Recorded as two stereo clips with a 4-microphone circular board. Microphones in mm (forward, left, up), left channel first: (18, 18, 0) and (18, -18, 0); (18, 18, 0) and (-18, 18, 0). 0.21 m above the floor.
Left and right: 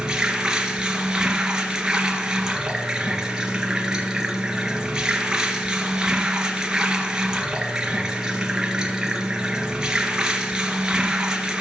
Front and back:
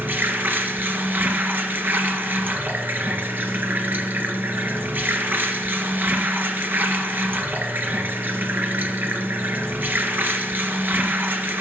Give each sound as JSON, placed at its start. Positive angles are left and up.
{"t": 0.0, "sound": "running water", "azimuth_deg": -160, "distance_m": 2.0}